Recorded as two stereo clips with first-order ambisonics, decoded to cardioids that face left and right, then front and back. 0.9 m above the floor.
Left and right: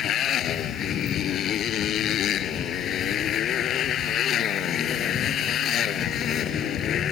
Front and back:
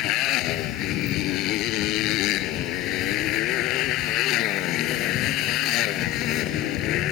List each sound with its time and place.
0.0 s a motorcycle: 35° left